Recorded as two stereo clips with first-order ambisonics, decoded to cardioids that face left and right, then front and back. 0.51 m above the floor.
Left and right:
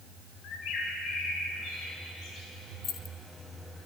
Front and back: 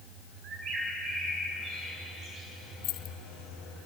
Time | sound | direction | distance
0.4 | a bird | 130° left | 4 m
2.8 | keys jangling | 35° left | 0.9 m